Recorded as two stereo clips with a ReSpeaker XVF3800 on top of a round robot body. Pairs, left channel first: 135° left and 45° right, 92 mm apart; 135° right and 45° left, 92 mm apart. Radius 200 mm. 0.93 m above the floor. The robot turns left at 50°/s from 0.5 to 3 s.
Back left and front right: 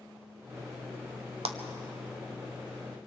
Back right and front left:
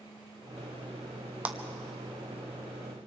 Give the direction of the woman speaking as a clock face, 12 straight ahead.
I don't hear a woman speaking.